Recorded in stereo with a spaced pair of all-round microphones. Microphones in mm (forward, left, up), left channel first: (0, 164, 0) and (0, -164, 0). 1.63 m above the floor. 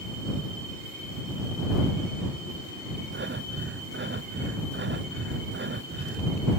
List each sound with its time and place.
3.1 s breathing: 35° right (ahead or behind)